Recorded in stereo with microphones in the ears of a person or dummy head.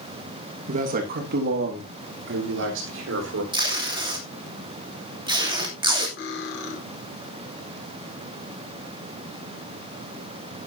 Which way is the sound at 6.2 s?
65° left (ahead or behind).